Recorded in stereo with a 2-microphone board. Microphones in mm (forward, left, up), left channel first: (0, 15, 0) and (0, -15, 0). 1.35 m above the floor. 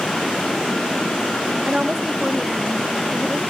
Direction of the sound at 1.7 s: 30° right (ahead or behind).